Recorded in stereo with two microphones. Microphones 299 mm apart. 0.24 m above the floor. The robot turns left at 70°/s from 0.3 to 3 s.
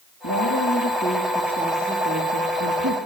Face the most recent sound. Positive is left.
turn(degrees=-100)